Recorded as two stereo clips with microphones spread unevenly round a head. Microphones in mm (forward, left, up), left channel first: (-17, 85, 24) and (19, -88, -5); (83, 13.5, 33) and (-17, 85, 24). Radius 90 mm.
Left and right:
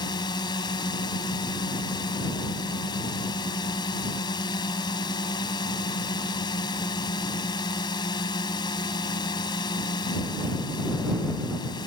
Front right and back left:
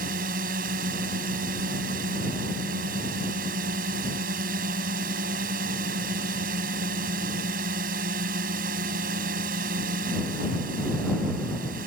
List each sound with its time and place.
0.0 s a drone: 170° left